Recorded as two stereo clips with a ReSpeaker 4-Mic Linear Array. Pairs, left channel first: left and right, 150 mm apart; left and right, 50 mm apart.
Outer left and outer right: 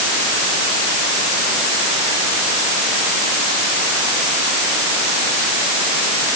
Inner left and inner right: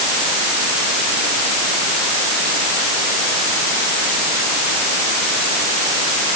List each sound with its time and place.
Only background noise.